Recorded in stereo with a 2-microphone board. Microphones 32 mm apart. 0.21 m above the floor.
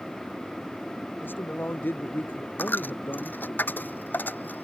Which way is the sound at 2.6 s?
70° left (ahead or behind).